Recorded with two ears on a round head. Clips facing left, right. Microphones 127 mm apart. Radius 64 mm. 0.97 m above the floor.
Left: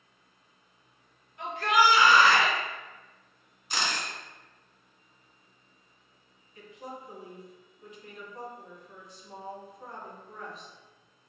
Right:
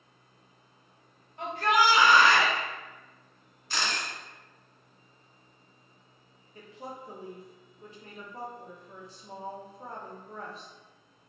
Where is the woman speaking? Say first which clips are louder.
Even; 30° right (ahead or behind), 0.6 m.